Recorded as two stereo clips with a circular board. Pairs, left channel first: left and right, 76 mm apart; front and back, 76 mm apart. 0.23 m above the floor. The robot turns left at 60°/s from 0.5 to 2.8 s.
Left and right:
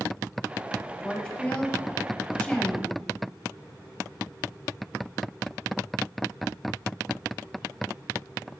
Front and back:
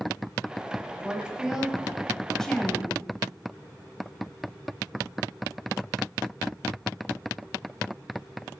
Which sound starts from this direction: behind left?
A woman speaking, at 1.0 s.